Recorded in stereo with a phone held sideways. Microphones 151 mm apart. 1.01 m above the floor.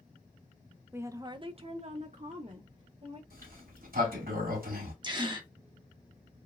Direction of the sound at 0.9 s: 15° right (ahead or behind).